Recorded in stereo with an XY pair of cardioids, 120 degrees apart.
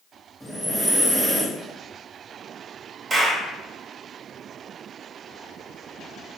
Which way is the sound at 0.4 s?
5° right.